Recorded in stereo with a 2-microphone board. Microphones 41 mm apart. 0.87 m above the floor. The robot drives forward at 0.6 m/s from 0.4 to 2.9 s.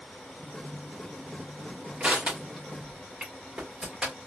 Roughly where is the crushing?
Right.